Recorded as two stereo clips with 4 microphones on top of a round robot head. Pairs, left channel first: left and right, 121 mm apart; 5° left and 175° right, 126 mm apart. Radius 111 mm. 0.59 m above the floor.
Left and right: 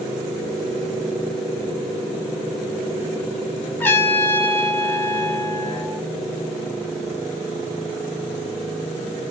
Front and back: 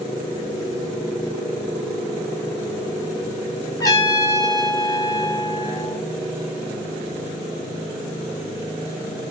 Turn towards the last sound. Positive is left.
turn(degrees=30)